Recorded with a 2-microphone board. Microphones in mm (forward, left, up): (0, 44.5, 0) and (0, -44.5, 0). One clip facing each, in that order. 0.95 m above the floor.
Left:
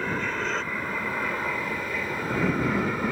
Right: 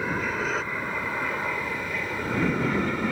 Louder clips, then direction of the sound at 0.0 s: Right 1 dB; 5° right (ahead or behind).